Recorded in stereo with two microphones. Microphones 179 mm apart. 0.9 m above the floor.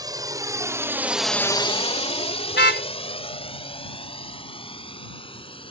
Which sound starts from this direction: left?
A car horn, at 2.5 s.